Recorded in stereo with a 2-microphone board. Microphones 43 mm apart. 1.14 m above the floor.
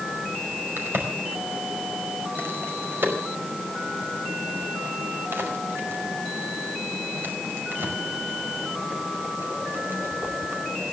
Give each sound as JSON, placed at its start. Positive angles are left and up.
{"t": 0.8, "sound": "a crack", "side_deg": -60, "distance_m": 5.0}